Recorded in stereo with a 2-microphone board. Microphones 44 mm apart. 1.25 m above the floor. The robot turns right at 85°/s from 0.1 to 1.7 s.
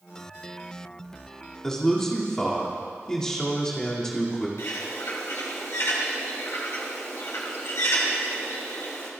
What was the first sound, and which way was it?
A man speaking, 10° left (ahead or behind).